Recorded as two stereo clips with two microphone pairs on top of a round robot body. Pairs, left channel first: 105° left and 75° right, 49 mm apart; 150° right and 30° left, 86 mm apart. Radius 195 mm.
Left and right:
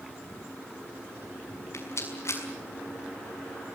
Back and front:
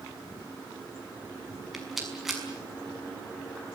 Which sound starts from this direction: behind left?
A rattle, at 1.7 s.